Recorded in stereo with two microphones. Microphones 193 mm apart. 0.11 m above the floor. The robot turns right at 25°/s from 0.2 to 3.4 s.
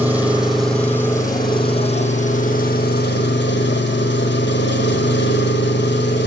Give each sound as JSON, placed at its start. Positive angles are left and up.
{"t": 0.0, "sound": "an engine running", "azimuth_deg": -10, "distance_m": 1.3}